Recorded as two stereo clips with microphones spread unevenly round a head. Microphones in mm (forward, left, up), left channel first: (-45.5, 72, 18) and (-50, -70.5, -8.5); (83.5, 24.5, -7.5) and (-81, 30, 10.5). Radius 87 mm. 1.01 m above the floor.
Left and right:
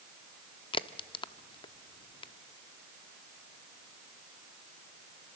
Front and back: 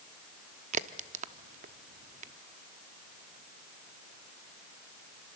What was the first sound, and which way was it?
A crack, 135° left.